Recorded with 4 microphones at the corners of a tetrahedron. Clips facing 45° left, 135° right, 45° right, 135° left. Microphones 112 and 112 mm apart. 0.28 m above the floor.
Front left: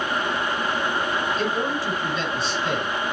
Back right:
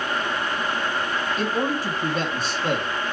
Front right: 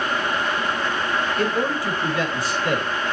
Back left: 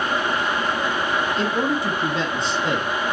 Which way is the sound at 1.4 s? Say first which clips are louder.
Even, back left 1 dB; 165° right.